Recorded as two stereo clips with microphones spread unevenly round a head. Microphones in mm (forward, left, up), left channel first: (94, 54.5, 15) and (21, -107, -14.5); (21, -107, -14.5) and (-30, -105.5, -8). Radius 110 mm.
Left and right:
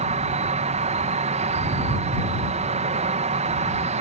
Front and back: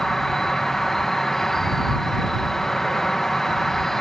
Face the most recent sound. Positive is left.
turn(degrees=-80)